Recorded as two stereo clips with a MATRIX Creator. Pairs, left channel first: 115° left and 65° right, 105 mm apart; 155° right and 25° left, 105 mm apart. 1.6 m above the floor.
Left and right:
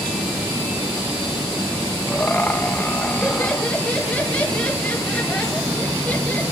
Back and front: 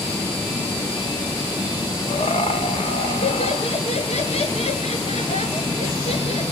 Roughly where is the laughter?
Behind.